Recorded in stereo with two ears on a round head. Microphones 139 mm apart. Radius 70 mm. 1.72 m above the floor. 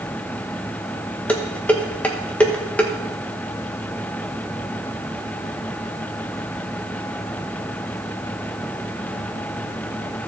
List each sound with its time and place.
1.3 s dishes clattering: 10° left (ahead or behind), 1.1 m